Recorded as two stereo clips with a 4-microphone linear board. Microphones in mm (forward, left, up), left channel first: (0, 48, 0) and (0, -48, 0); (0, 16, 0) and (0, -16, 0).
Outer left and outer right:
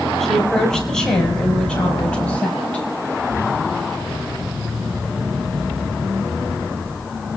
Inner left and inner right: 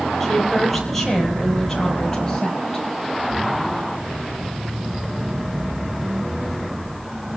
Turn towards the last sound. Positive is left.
turn(degrees=15)  # may be behind; listen again after turning